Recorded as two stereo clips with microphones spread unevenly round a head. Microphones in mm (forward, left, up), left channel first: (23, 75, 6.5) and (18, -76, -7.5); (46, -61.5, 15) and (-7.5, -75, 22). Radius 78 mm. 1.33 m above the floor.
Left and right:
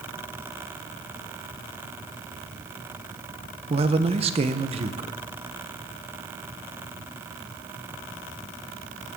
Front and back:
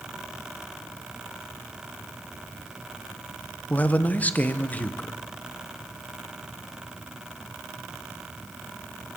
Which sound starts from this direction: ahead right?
A man speaking, at 3.7 s.